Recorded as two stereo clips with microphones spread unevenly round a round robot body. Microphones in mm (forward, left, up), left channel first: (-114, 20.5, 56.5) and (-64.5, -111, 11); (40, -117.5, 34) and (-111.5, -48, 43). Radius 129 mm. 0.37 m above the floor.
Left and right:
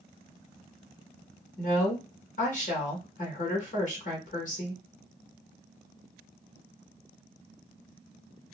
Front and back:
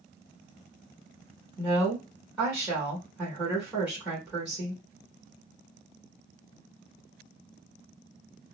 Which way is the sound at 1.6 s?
70° left.